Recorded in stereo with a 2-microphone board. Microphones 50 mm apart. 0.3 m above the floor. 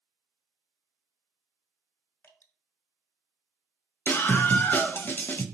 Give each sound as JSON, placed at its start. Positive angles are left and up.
{"t": 2.2, "sound": "dripping", "side_deg": 45, "distance_m": 1.7}
{"t": 4.1, "sound": "a scream", "side_deg": 40, "distance_m": 1.2}